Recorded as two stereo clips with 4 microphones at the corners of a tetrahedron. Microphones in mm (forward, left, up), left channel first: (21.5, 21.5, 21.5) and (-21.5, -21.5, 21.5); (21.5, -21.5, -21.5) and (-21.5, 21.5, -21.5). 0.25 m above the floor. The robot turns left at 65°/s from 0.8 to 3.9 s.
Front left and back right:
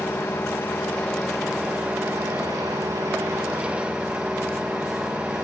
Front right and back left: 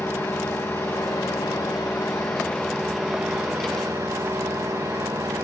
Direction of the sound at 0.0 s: 10° right.